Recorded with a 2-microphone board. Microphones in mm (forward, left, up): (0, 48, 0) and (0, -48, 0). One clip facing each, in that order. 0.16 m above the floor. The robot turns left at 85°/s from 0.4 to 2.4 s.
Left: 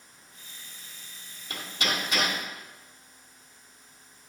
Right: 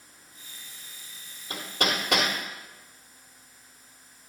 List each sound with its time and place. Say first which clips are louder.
1.5 s hammering: right 3 dB; 25° right (ahead or behind), 2 m; by 2.3 s 75° right (ahead or behind), 2 m